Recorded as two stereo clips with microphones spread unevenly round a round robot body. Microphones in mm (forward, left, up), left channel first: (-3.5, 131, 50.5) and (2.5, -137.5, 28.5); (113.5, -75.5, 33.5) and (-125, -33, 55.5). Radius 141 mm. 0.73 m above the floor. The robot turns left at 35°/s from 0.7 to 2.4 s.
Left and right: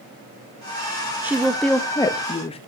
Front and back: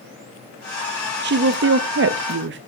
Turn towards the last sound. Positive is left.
turn(degrees=155)